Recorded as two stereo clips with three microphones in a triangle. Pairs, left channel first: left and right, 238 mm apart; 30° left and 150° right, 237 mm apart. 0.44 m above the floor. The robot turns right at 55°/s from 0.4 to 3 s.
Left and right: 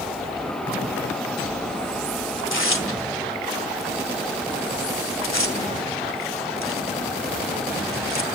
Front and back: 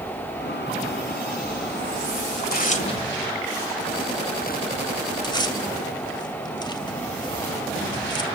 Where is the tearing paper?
65° left, 1.9 m; by 8.3 s 95° left, 1.9 m.